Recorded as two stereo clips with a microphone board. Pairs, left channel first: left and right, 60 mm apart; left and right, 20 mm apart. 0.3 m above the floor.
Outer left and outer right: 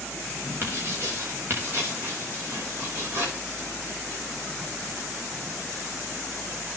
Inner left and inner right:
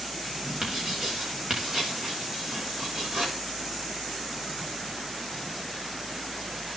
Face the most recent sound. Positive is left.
turn(degrees=-35)  # may be behind; listen again after turning